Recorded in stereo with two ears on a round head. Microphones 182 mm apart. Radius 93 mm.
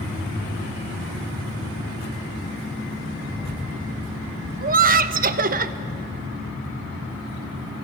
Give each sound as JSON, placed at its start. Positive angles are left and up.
{"t": 3.2, "sound": "a rattle", "side_deg": -5, "distance_m": 3.0}
{"t": 4.6, "sound": "laughter", "side_deg": -45, "distance_m": 1.1}